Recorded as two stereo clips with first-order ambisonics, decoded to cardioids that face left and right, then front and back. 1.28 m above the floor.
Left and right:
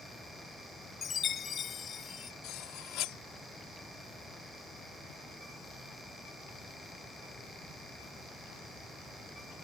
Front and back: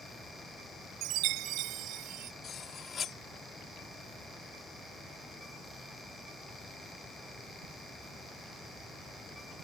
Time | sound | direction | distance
1.0 | a chime | 150° left | ?
2.4 | cutlery clinking | 60° left | ?